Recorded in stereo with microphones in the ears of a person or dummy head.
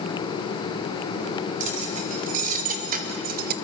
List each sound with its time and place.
1.6 s keys jangling: 50° right (ahead or behind), 3.5 m; by 3.5 s 60° right (ahead or behind), 1.0 m